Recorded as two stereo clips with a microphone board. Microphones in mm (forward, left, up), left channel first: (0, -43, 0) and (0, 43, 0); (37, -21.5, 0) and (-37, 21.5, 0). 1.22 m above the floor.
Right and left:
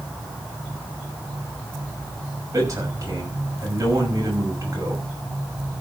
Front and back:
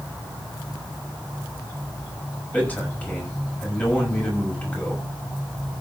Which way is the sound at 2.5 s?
40° left.